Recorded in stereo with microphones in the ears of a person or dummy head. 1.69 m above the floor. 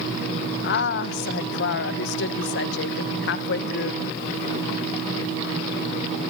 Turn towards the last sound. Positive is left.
turn(degrees=65)  # may be behind; listen again after turning